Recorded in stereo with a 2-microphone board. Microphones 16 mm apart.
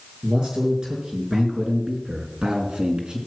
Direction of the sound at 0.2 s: 50° right (ahead or behind).